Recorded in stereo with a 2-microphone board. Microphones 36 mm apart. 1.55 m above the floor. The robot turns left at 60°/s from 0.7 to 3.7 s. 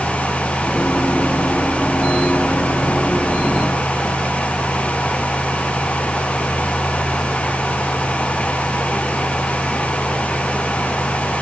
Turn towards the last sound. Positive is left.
No sound to turn to.